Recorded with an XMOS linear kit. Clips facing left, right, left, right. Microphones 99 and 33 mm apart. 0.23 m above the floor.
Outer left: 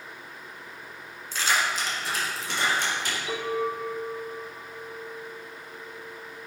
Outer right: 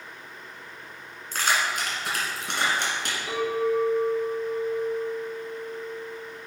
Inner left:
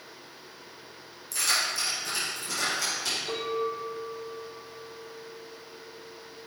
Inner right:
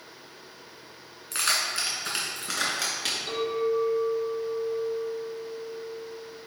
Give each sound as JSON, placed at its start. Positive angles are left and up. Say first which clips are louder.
{"t": 1.3, "sound": "keys jangling", "louder": "outer right 1 dB, inner right 1 dB", "side_deg": -55, "distance_m": 1.9}
{"t": 3.3, "sound": "a clink", "louder": "outer right 5 dB, inner right 6 dB", "side_deg": -45, "distance_m": 2.5}